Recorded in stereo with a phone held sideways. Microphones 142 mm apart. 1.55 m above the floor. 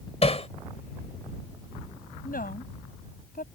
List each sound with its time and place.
0.2 s hammering: 45° left (ahead or behind)
2.2 s a woman speaking: 85° left